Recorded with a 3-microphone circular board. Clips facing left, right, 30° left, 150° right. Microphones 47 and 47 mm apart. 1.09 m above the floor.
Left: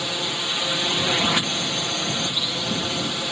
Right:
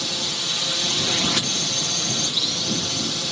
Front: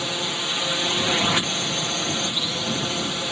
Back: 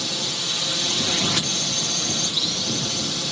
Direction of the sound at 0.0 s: 55° left.